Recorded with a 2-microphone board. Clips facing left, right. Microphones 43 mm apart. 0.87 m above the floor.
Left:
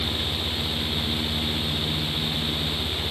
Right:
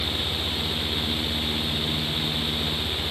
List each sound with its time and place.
Only background noise.